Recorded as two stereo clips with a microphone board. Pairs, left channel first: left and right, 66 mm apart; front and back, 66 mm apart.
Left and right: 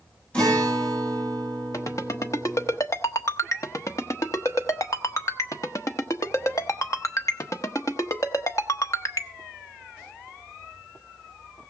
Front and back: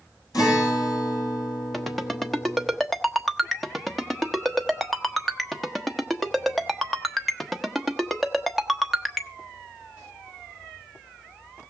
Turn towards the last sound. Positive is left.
turn(degrees=85)